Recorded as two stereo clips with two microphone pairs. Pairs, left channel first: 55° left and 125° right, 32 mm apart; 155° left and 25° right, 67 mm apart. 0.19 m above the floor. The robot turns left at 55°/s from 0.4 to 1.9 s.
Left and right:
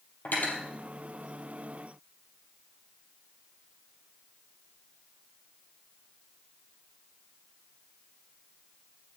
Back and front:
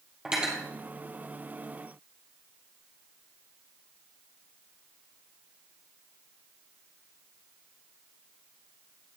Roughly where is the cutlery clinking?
Ahead left.